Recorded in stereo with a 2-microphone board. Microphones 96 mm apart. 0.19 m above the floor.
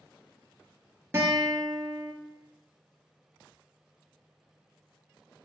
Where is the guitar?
30° right (ahead or behind), 1.0 m.